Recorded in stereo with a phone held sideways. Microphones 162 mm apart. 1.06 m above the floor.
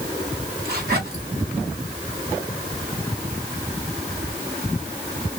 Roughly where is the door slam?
No door slam in this recording.